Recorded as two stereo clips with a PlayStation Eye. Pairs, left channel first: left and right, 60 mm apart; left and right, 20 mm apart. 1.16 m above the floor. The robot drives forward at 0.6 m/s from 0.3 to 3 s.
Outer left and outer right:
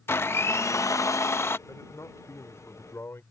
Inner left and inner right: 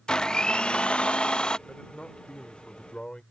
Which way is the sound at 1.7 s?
60° left (ahead or behind).